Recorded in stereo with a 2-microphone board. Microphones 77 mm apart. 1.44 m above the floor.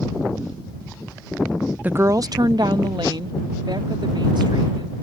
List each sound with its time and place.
1.8 s a woman speaking: 20° right (ahead or behind); by 4.9 s 80° right